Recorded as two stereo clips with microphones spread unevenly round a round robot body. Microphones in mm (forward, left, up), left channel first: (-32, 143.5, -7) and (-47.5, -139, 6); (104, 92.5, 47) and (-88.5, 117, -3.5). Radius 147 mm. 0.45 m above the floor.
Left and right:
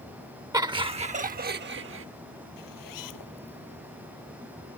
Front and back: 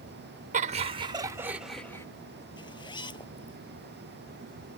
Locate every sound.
0.5 s laughter: 170° right; by 2.1 s 95° right
2.6 s a zipper: 60° left